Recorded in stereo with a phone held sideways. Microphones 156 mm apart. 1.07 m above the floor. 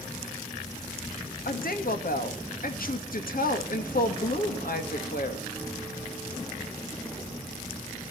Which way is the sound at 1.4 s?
65° left (ahead or behind).